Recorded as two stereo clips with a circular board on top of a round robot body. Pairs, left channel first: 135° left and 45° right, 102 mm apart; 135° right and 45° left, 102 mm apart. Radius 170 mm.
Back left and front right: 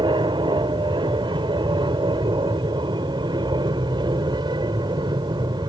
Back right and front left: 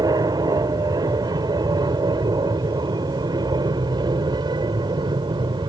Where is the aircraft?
5° right; by 5.7 s straight ahead.